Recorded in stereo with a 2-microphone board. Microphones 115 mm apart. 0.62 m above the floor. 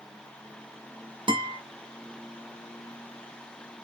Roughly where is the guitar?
Right.